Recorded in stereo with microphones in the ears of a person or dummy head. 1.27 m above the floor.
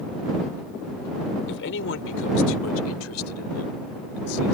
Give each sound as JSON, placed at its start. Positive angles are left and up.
{"t": 1.5, "sound": "a man speaking", "side_deg": 70}